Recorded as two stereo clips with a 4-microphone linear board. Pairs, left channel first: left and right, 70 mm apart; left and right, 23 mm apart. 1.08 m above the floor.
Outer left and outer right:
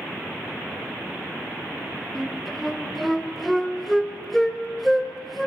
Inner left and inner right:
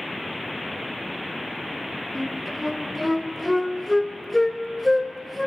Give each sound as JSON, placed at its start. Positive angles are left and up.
{"t": 2.1, "sound": "a flute", "side_deg": 0, "distance_m": 1.5}